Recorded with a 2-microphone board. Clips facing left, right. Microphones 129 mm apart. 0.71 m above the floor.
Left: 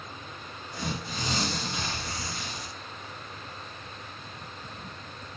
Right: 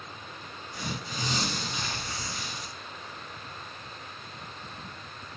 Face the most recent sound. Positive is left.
turn(degrees=55)  # may be behind; listen again after turning